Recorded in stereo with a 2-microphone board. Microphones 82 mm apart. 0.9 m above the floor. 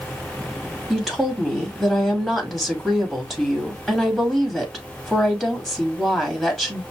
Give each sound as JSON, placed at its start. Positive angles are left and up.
{"t": 0.9, "sound": "a woman speaking", "side_deg": -5, "distance_m": 1.7}